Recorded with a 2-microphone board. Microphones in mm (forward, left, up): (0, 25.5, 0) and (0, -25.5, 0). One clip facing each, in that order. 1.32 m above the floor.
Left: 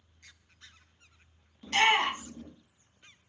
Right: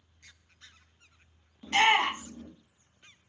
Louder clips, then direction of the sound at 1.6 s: Right 1 dB; 15° right (ahead or behind).